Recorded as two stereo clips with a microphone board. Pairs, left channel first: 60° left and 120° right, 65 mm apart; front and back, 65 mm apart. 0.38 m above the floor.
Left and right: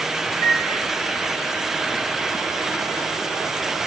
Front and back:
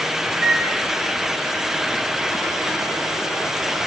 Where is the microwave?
85° left, 1.2 m.